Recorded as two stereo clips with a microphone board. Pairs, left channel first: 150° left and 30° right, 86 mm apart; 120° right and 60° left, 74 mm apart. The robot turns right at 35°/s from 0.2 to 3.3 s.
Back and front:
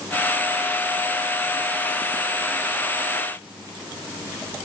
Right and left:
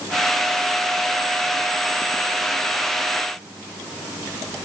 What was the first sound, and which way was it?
Only background noise.